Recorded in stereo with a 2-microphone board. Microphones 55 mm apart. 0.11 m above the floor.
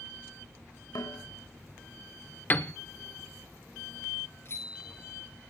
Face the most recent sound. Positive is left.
turn(degrees=50)  # may be behind; listen again after turning